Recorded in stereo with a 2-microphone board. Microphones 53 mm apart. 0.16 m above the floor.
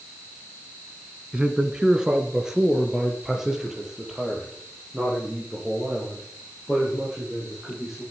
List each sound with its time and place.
1.3 s a man speaking: 15° right (ahead or behind), 1.3 m; by 8.0 s 5° right (ahead or behind), 8 m